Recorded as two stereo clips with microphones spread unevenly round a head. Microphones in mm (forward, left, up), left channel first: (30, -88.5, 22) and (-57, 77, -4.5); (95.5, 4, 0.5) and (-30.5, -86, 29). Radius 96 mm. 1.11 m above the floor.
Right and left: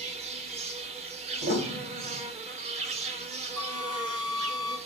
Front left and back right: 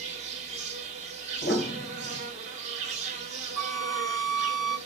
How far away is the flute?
About 0.7 m.